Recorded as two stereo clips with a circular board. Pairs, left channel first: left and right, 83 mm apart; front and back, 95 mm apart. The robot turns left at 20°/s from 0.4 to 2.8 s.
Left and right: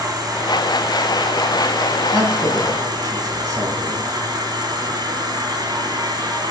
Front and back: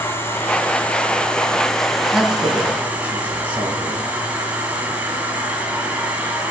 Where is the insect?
60° right, 1.7 m; by 6.5 s 110° right, 1.7 m.